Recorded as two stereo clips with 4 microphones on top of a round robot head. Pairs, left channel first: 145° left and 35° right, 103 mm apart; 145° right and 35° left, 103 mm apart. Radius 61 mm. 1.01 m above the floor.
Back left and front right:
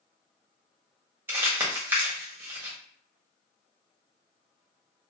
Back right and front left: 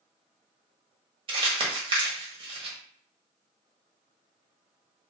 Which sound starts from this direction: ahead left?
Crumpling, at 1.3 s.